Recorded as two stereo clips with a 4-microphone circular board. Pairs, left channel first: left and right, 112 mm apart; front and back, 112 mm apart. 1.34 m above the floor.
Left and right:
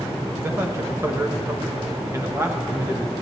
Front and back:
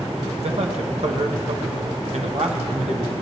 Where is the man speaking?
155° right, 1.4 m.